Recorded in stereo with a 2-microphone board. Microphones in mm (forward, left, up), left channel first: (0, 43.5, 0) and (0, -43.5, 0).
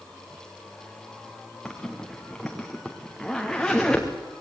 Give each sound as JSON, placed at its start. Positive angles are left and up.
{"t": 1.6, "sound": "a zipper", "side_deg": 5, "distance_m": 3.0}